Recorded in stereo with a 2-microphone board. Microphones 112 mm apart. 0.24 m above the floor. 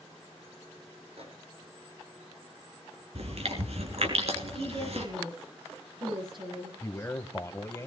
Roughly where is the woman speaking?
Right.